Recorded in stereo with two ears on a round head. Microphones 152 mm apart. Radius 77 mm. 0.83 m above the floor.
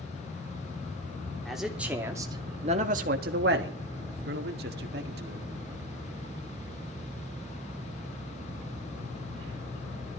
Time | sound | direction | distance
1.4 | a man speaking | centre (ahead or behind) | 3 m
4.2 | a man speaking | 60° right (ahead or behind) | 2.0 m